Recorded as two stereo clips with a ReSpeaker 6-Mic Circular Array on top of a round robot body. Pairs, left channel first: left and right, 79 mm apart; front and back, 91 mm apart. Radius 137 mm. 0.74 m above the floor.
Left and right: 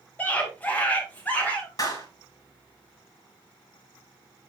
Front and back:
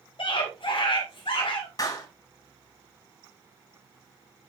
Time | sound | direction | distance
0.2 | a scream | 25° left | 2.5 m
1.8 | a clap | 50° left | 3 m